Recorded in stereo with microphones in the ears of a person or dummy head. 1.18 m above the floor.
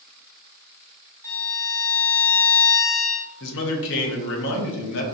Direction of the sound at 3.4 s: 60° left (ahead or behind).